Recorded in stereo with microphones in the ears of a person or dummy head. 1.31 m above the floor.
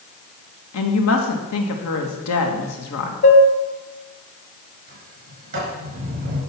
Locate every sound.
0.7 s a woman speaking: 75° left (ahead or behind), 1.8 m
3.2 s dishes clattering: 70° left (ahead or behind), 1.5 m
4.9 s a sliding door: 40° right (ahead or behind), 4.5 m